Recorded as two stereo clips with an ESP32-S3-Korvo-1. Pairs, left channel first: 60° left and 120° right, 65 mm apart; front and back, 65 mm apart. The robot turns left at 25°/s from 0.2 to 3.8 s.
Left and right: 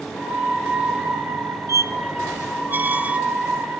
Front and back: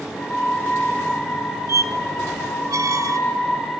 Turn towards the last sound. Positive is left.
turn(degrees=160)